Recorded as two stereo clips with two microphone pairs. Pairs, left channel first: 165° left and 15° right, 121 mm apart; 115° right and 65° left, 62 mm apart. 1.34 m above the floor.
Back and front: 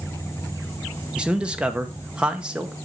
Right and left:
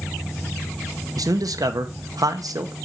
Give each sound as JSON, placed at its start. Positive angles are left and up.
{"t": 1.2, "sound": "a man speaking", "azimuth_deg": 65, "distance_m": 1.0}